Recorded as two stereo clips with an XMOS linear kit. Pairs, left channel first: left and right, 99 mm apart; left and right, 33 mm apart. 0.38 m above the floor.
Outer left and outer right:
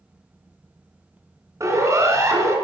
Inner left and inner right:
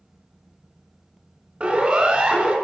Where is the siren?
35° right (ahead or behind), 3 m.